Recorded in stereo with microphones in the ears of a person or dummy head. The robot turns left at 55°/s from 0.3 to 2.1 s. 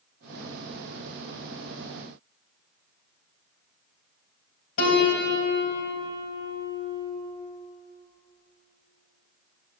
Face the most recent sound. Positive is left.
turn(degrees=75)  # may be behind; listen again after turning